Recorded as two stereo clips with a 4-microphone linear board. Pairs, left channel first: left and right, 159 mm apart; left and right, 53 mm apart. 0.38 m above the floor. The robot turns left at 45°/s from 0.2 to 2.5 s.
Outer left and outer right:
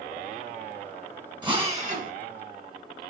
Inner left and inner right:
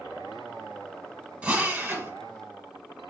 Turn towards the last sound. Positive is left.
turn(degrees=-80)